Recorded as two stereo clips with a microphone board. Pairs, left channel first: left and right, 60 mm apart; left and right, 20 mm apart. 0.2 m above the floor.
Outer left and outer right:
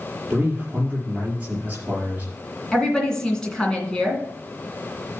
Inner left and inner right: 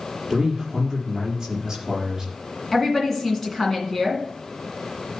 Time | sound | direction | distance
0.3 | a man speaking | 25° right (ahead or behind) | 4.5 m
2.7 | a woman speaking | 10° left (ahead or behind) | 2.5 m